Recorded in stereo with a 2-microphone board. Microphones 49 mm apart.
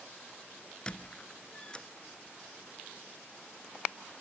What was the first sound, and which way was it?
A squeak, 20° left (ahead or behind).